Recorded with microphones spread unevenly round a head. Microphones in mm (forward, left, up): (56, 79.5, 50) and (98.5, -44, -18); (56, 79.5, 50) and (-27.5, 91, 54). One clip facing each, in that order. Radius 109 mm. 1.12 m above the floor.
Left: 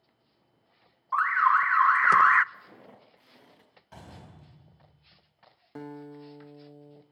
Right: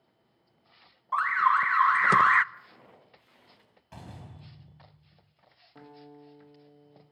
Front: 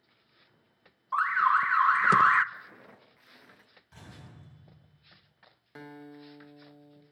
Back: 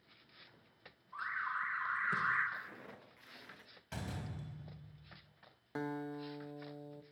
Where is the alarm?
15° right, 0.7 m.